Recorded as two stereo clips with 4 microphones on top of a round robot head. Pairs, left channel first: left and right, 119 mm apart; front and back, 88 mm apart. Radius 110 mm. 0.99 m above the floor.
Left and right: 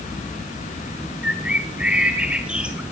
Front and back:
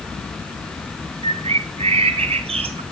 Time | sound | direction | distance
1.2 | a bird | 175° right | 1.3 m